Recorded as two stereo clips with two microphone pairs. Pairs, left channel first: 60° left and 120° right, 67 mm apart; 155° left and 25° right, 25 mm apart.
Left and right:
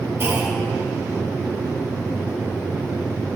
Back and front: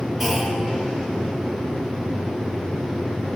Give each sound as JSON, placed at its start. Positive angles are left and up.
{"t": 0.2, "sound": "a clunk", "azimuth_deg": -110, "distance_m": 0.9}